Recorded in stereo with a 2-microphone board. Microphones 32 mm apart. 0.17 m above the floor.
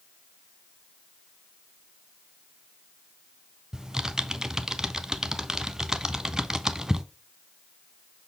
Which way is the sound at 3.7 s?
20° right (ahead or behind).